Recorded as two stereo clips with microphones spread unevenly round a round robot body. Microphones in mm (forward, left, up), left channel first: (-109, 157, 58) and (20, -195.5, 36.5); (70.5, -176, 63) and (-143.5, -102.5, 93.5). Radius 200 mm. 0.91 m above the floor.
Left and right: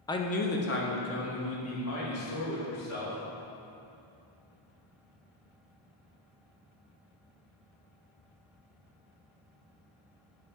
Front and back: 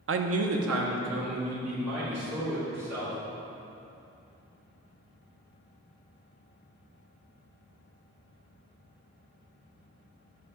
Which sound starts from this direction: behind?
A man speaking, at 0.1 s.